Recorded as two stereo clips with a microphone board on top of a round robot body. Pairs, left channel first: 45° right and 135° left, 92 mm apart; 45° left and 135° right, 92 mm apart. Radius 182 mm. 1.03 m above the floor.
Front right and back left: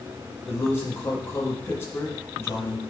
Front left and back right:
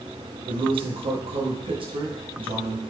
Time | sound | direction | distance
0.5 | a man speaking | 110° right | 1.5 m